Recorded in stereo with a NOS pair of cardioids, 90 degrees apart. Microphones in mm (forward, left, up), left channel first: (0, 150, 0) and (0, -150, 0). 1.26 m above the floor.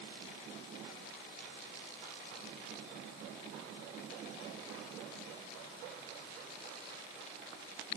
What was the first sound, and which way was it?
Only background noise.